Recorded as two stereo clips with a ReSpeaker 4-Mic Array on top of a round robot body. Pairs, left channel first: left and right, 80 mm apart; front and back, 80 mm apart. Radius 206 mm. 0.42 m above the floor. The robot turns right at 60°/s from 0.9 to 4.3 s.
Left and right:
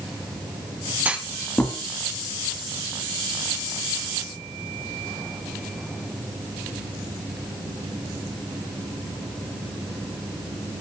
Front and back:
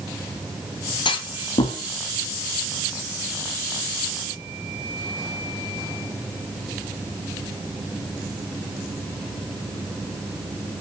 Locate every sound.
1.1 s a clunk: 20° right, 0.6 m; by 1.8 s 25° left, 0.6 m